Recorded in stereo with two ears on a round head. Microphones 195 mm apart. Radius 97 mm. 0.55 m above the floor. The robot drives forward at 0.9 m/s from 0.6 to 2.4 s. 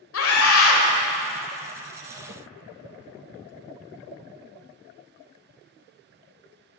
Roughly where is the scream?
Left.